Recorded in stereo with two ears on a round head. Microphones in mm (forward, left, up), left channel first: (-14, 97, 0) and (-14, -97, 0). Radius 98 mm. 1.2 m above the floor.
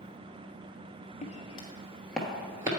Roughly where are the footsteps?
Left.